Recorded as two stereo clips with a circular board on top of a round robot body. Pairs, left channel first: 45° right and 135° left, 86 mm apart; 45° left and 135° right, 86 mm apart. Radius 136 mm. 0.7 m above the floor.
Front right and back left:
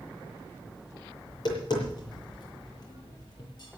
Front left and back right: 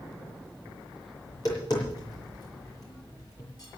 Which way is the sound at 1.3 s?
5° right.